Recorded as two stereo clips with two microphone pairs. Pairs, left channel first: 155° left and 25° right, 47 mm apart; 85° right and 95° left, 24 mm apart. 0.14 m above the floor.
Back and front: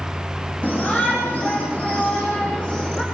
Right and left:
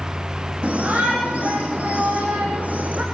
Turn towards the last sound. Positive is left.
turn(degrees=90)